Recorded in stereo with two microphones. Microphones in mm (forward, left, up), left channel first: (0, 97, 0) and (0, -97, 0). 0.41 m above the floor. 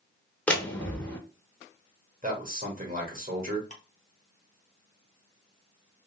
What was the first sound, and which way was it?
A door slam, 5° left (ahead or behind).